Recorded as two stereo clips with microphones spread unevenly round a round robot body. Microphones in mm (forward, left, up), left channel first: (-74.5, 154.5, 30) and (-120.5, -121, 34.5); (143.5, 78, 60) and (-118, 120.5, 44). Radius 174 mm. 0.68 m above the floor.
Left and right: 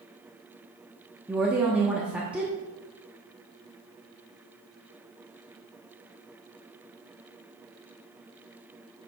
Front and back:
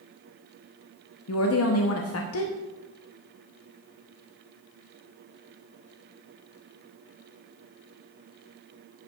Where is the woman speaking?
15° right, 0.9 m.